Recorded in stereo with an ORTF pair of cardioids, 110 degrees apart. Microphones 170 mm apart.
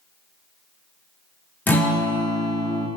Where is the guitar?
10° left, 0.5 m.